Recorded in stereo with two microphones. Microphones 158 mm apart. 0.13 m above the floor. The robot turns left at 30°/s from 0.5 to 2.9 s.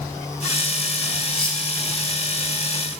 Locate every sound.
1.3 s cutlery clinking: 60° left (ahead or behind), 2 m; by 1.6 s 65° left (ahead or behind), 2 m